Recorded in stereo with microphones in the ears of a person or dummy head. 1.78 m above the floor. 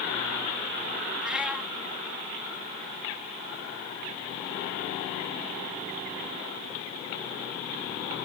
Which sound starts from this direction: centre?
A cat meowing, at 1.2 s.